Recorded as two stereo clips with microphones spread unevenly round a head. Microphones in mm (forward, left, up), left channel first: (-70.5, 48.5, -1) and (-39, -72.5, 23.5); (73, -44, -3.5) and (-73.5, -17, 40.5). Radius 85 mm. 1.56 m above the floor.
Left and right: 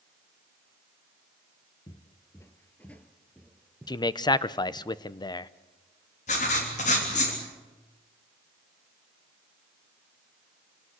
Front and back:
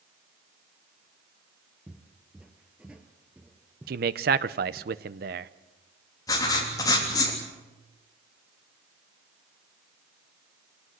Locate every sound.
1.9 s footsteps: 145° left, 1.6 m; by 4.9 s 125° right, 2 m
3.9 s a man speaking: 165° left, 0.8 m
6.3 s writing: 60° left, 3 m